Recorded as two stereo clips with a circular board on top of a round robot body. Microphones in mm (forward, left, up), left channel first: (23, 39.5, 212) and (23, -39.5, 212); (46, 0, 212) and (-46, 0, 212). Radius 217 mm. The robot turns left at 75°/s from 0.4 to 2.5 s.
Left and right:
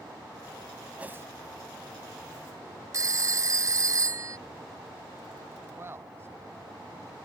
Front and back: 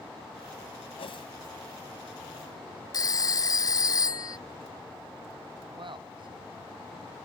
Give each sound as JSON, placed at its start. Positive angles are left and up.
{"t": 1.0, "sound": "a whoosh", "azimuth_deg": -15}
{"t": 2.9, "sound": "a phone ringing", "azimuth_deg": -45}
{"t": 5.7, "sound": "a man speaking", "azimuth_deg": -150}